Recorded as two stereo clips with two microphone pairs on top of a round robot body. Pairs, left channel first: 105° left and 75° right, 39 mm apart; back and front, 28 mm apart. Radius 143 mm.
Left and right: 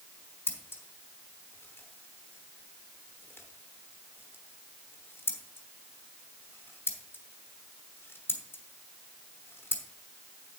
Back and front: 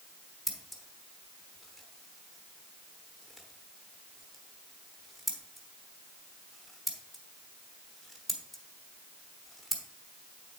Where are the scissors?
90° left, 1.2 m.